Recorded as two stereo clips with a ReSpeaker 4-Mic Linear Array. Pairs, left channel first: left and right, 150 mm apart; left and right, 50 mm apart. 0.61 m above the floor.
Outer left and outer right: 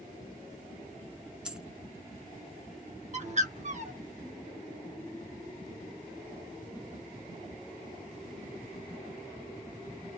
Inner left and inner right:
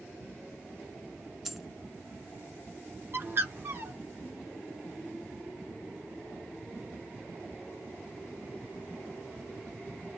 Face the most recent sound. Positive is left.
turn(degrees=-50)  # may be behind; listen again after turning